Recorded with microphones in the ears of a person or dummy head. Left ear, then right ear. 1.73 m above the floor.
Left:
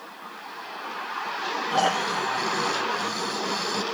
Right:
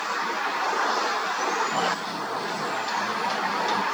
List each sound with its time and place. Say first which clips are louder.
1.7 s snoring: left 3 dB; 55° left (ahead or behind)